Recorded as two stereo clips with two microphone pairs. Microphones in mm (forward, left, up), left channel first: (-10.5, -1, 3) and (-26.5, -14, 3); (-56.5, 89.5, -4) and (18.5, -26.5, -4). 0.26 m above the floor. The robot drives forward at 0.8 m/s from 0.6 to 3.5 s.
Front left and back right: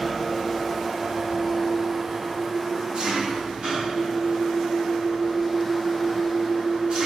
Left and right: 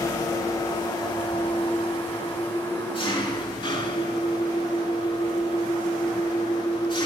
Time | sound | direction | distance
0.0 | an engine running | 135° left | 1.1 m